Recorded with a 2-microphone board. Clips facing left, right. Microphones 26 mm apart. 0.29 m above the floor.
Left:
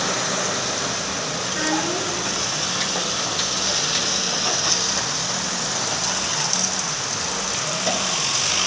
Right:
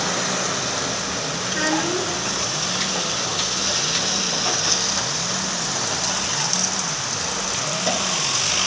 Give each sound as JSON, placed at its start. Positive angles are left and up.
{"t": 1.5, "sound": "a child speaking", "side_deg": -10, "distance_m": 1.8}